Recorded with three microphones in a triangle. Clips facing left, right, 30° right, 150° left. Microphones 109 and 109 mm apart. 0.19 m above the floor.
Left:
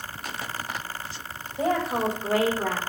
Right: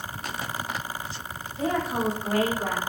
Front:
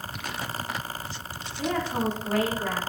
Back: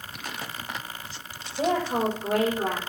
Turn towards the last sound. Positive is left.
turn(degrees=165)